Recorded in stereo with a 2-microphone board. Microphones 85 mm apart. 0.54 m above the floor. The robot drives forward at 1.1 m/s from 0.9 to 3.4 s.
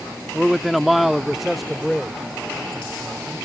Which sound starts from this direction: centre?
A man speaking, at 0.3 s.